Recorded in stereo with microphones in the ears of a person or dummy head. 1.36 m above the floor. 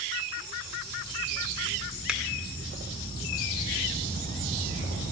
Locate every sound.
2.1 s a finger snap: 5° right (ahead or behind), 1.7 m